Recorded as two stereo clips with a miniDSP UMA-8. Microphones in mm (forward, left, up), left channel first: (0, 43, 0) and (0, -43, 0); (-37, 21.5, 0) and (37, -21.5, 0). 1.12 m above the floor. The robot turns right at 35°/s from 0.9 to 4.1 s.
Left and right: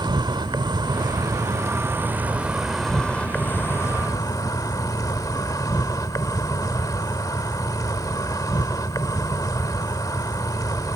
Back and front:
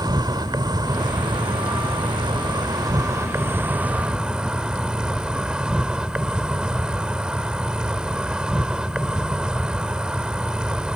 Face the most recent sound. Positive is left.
turn(degrees=50)